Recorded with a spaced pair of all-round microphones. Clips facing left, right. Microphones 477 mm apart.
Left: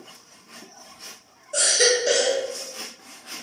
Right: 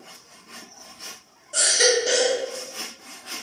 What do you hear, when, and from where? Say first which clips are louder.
1.5 s a baby crying: even; 20° right (ahead or behind), 0.5 m